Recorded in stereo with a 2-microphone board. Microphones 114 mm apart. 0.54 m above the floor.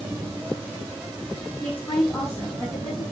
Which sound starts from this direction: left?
A woman speaking, at 1.6 s.